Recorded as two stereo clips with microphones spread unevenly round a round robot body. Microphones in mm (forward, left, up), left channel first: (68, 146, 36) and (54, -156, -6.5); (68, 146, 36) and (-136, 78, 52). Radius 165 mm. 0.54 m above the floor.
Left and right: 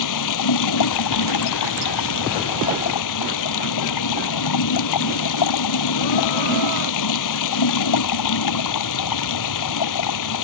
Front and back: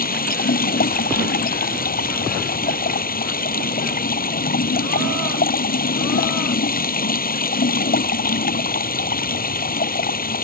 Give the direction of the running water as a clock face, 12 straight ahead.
10 o'clock.